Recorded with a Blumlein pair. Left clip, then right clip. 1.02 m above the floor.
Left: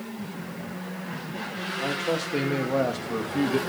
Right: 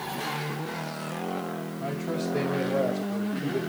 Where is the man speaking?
70° left, 2.5 m; by 3.6 s 40° left, 1.5 m.